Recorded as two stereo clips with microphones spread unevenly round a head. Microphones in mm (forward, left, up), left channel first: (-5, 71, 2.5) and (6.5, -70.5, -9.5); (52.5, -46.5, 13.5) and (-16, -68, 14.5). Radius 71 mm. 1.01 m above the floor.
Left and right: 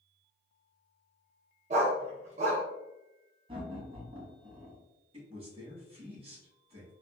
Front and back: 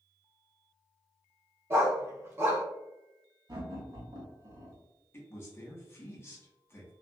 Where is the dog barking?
120° right, 0.7 m.